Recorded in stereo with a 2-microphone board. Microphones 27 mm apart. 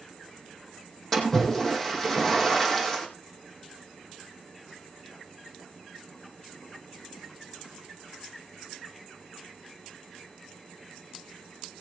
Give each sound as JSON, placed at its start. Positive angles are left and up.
{"t": 1.1, "sound": "a splash", "side_deg": 20, "distance_m": 4.0}